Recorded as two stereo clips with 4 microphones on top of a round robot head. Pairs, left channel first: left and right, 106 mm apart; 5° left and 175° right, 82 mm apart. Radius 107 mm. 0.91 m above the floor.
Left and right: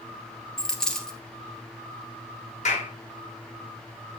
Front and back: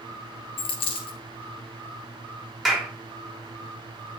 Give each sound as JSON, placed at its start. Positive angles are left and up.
{"t": 0.6, "sound": "a dropped coin", "azimuth_deg": 5, "distance_m": 1.6}
{"t": 2.6, "sound": "a clap", "azimuth_deg": 90, "distance_m": 3.0}